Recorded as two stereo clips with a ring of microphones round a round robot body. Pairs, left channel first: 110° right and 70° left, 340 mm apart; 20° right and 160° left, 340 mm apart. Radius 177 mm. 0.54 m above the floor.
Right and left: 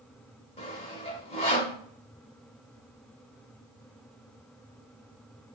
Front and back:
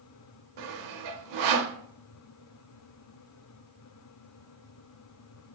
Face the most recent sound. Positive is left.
turn(degrees=175)